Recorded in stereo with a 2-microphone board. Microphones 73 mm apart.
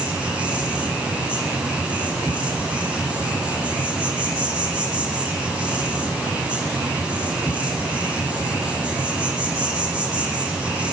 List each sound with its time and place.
0.0 s an insect: 15° right (ahead or behind), 3.5 m